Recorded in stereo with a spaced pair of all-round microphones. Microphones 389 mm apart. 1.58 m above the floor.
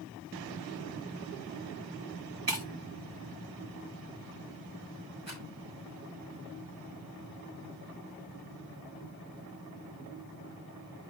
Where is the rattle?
45° right (ahead or behind), 6 m.